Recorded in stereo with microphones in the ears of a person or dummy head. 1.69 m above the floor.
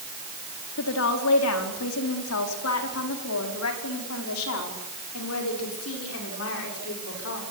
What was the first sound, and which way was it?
A woman speaking, 75° left (ahead or behind).